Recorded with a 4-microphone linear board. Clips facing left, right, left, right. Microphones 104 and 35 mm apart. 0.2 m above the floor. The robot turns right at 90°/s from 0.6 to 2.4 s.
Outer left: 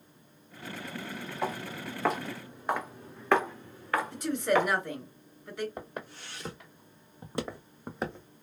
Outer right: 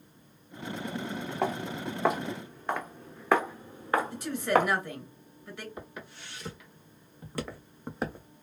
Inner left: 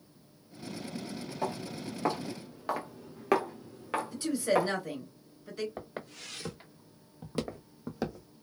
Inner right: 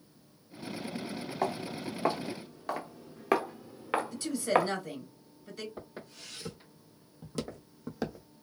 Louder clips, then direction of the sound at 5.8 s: Outer left 3 dB, inner left 4 dB; 45° left (ahead or behind).